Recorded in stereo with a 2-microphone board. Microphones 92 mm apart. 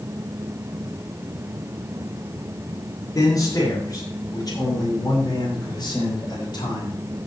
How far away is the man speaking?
About 5 m.